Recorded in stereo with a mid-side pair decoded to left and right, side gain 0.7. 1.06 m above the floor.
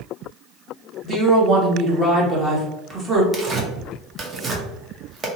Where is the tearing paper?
30° right, 0.8 m.